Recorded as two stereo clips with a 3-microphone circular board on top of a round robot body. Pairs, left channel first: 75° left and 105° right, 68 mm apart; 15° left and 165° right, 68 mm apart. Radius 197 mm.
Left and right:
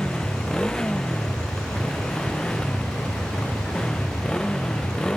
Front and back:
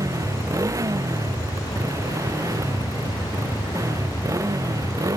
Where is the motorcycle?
155° left.